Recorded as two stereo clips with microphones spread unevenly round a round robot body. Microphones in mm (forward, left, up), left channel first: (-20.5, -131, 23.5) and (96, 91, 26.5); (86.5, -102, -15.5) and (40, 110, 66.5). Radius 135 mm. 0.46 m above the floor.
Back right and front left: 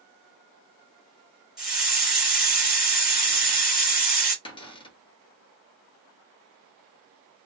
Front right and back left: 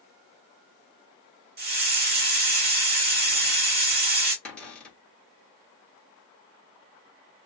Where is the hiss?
150° left, 1.5 m.